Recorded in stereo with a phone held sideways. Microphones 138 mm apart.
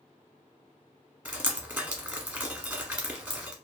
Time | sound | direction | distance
1.2 | dripping | 10° right (ahead or behind) | 1.1 m